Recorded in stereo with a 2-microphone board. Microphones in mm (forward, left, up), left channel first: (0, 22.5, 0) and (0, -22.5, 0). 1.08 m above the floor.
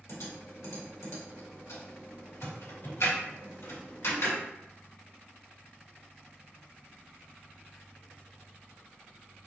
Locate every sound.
0.1 s typing on a keyboard: 80° left, 2.0 m